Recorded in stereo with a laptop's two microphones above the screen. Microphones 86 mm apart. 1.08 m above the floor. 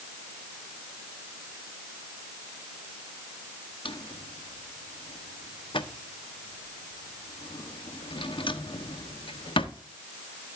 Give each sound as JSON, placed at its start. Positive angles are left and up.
{"t": 3.9, "sound": "a drawer", "side_deg": 80, "distance_m": 1.1}